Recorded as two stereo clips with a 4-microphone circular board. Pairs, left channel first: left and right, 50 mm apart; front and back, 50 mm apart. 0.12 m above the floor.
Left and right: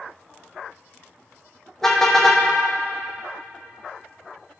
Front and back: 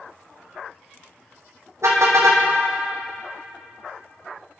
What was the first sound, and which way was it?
A car horn, 170° left.